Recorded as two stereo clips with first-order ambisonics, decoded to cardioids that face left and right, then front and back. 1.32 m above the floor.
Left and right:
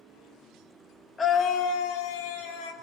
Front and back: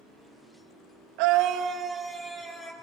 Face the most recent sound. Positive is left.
turn(degrees=80)